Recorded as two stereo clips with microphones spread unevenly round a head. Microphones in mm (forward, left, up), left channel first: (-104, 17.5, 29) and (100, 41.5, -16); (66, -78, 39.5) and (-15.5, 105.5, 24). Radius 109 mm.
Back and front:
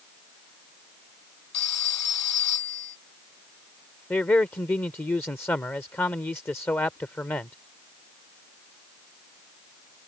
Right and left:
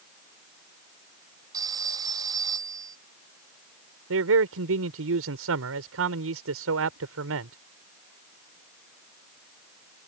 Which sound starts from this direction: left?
A man speaking, at 4.1 s.